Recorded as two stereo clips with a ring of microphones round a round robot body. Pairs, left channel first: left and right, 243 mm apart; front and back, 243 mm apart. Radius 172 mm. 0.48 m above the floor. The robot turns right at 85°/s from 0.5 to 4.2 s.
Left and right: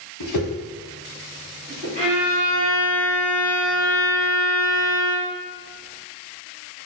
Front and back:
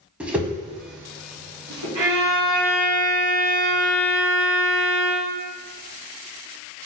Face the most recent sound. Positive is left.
turn(degrees=45)